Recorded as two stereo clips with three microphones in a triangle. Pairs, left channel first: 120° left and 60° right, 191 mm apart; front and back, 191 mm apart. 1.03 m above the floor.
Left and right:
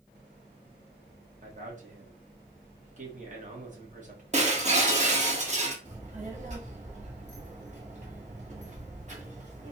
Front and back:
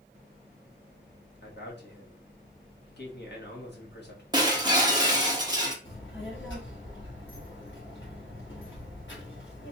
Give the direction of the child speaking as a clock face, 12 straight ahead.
12 o'clock.